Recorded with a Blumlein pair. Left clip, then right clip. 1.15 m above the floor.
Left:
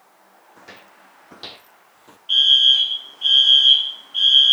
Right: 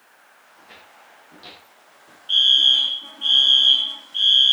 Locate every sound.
0.6 s footsteps: 55° left, 4 m; by 2.2 s 70° left, 1.9 m
2.3 s a fire alarm: 5° left, 3 m